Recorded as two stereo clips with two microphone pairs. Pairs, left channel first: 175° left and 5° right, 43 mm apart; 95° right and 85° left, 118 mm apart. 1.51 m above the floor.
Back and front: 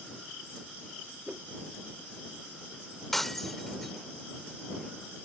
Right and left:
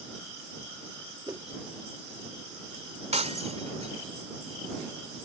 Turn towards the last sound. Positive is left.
turn(degrees=90)